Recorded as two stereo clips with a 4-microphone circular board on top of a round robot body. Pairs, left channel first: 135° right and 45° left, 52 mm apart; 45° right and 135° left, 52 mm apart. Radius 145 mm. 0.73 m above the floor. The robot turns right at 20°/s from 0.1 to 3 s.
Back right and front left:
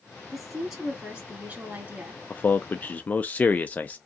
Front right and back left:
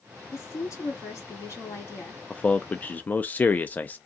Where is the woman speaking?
45° right, 2.0 m; by 2.2 s 5° right, 2.0 m.